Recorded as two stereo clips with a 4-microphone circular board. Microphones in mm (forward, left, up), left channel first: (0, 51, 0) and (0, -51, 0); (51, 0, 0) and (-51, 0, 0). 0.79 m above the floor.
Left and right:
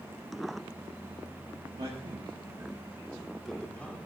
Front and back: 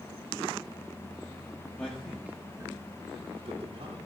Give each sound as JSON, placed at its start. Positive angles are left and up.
{"t": 1.8, "sound": "a man speaking", "azimuth_deg": -75, "distance_m": 1.6}